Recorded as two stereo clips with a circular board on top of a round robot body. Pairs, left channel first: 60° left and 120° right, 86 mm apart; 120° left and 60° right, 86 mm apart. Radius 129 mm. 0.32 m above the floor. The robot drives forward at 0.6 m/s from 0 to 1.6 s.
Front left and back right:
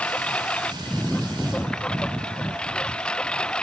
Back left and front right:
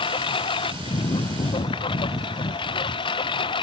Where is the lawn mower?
135° left; by 3.6 s 140° left.